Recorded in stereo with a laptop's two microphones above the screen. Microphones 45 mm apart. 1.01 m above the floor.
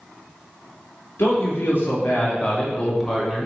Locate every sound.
1.2 s a man speaking: 60° left (ahead or behind), 1.4 m; by 3.5 s 10° right (ahead or behind), 0.9 m